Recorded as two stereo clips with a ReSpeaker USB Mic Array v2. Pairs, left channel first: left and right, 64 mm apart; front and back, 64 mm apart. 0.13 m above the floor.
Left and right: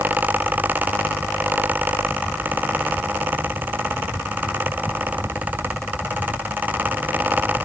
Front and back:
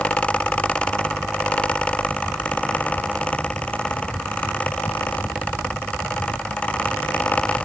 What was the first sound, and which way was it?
Only background noise.